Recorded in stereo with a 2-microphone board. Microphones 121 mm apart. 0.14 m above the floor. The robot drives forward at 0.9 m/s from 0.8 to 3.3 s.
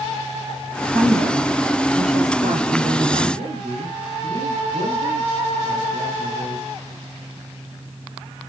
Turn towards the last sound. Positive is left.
turn(degrees=-70)  # may be behind; listen again after turning